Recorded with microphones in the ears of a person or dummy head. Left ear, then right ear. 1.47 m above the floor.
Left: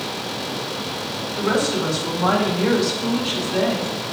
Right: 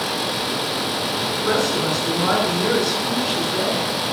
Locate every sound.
1.4 s a woman speaking: 30° left (ahead or behind), 3.5 m